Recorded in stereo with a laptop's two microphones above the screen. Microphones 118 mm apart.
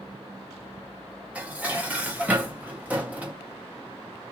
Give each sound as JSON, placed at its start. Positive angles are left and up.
{"t": 1.4, "sound": "dishes clattering", "side_deg": -15, "distance_m": 0.7}